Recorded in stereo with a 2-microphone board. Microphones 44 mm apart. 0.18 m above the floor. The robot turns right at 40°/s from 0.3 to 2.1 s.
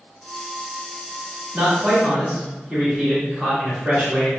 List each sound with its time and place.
1.5 s a man speaking: 15° right (ahead or behind), 1.6 m; by 4.3 s 10° right (ahead or behind), 1.6 m